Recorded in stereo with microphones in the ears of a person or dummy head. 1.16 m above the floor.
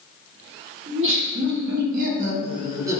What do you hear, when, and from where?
0.9 s laughter: 55° right (ahead or behind), 0.9 m; by 3.0 s 15° right (ahead or behind), 0.8 m